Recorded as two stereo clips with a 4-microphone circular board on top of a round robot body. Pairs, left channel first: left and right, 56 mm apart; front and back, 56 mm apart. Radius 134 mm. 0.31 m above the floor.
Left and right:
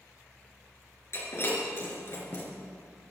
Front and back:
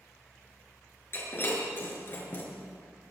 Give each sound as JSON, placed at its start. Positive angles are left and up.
{"t": 1.1, "sound": "breaking glass", "azimuth_deg": 50, "distance_m": 4.0}